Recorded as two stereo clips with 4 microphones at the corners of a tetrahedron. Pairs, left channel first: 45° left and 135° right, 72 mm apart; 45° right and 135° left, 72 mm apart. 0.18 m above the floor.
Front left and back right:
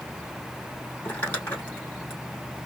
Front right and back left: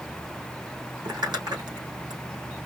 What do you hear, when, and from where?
1.1 s crumpling: 110° left, 4 m